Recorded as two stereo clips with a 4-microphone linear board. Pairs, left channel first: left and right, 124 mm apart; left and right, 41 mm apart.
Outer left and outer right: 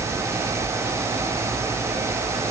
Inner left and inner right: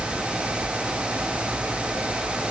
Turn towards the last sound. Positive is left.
No sound to turn to.